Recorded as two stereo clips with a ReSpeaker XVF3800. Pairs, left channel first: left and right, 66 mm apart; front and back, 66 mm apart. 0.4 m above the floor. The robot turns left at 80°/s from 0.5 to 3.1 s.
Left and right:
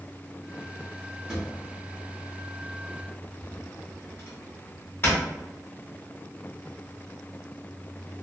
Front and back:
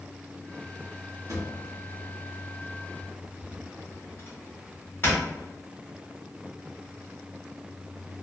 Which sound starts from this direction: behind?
A drawer, at 1.3 s.